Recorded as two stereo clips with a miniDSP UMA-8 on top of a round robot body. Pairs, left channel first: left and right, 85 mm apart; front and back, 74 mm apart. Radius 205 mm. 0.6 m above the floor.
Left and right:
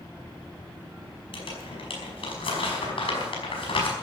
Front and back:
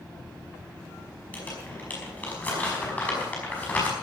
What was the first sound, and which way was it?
Crumpling, 70° left.